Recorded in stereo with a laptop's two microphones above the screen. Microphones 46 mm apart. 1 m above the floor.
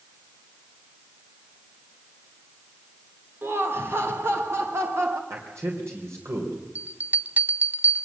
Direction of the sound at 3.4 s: 55° right (ahead or behind).